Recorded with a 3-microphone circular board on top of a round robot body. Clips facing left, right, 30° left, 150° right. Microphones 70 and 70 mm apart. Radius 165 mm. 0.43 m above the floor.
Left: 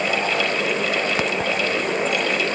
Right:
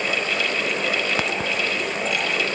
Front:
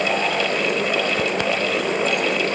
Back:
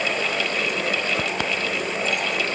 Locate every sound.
Only background noise.